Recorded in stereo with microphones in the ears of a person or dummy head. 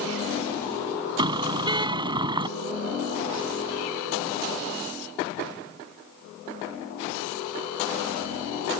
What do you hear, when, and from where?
1.2 s a car horn: 20° right (ahead or behind)